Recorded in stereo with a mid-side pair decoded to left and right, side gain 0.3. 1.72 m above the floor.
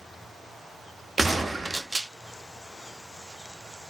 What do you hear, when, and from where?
1.2 s a gunshot: 25° right, 0.7 m